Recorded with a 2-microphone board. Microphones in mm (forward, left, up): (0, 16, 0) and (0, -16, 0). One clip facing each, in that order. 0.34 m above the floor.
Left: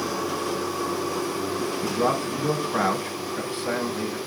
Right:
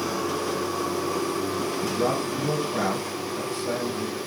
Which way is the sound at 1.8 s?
40° left (ahead or behind).